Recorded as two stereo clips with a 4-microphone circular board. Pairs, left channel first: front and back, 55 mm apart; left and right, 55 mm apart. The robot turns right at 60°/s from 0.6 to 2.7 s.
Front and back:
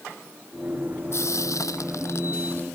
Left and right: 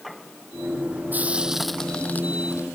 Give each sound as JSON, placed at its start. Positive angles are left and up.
{"t": 1.1, "sound": "frying", "azimuth_deg": -35}